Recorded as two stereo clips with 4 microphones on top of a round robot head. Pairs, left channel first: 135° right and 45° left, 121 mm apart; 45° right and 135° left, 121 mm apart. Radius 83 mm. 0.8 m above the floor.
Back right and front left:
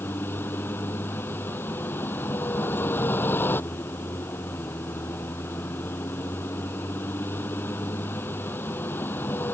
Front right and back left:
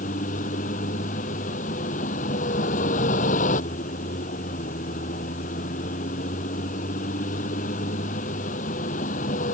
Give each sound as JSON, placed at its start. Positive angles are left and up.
{"t": 0.0, "sound": "a vehicle", "azimuth_deg": -60}